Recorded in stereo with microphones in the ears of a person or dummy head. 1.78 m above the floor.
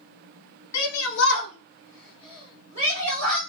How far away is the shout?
About 1.3 m.